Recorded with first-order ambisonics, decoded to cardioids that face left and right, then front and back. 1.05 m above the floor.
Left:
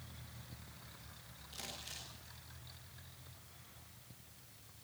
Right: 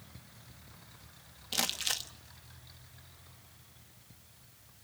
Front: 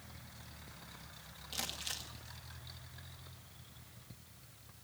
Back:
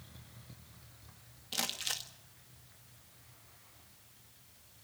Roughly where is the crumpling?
Right.